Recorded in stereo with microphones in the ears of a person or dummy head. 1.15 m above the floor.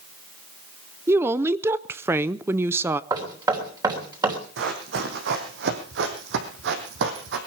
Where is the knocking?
20° right (ahead or behind), 3 m.